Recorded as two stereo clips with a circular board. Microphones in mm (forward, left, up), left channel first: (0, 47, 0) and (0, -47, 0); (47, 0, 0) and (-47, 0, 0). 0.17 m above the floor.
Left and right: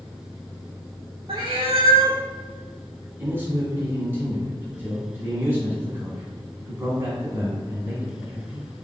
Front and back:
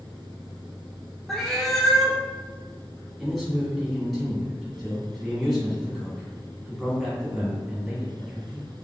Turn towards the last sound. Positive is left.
turn(degrees=-90)